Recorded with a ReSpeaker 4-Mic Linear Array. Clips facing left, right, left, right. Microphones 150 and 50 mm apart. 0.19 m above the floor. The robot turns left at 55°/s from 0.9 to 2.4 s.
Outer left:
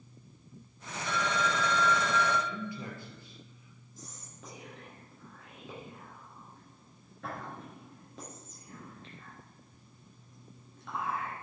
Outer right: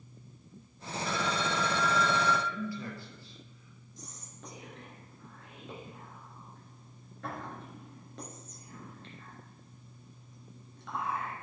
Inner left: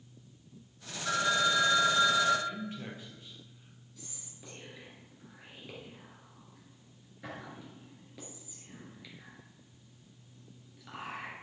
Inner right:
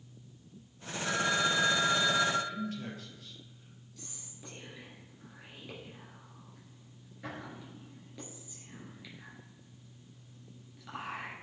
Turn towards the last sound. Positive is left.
turn(degrees=0)  # may be behind; listen again after turning